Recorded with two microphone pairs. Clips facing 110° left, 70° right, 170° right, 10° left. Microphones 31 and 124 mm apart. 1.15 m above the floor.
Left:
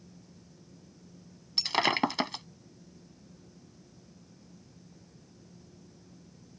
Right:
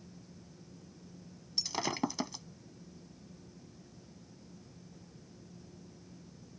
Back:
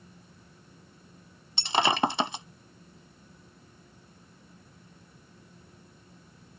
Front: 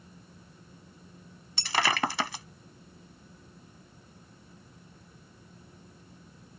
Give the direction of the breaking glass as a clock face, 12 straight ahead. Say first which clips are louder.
Left 8 dB, back 3 dB; 8 o'clock.